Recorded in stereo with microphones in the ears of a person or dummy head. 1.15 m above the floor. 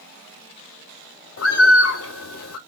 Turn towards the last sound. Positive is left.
turn(degrees=80)